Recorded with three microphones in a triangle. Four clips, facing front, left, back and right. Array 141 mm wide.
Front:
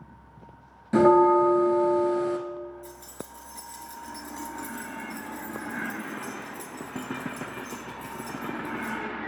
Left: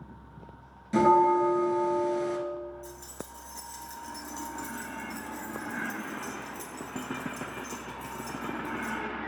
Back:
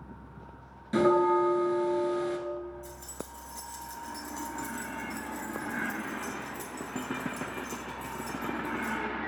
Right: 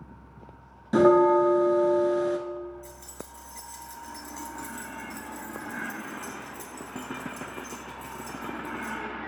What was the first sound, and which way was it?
A bell, 50° right.